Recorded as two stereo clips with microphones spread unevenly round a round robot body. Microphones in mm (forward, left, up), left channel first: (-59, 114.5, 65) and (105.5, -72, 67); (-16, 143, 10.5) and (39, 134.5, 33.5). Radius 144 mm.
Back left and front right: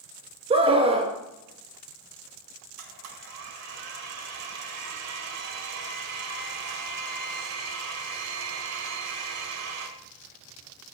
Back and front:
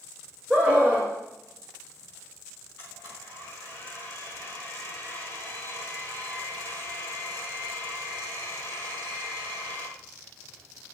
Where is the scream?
105° right, 1.2 m.